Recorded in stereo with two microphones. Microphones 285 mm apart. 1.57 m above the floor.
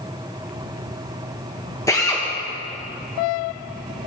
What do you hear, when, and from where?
1.9 s a drill: 10° left (ahead or behind), 1.4 m